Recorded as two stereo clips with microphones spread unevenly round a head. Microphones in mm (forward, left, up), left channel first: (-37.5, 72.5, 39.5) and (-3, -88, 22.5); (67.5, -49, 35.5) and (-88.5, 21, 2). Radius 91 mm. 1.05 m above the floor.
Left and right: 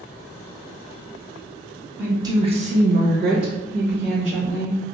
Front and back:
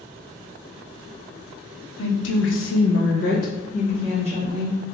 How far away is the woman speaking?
About 0.8 m.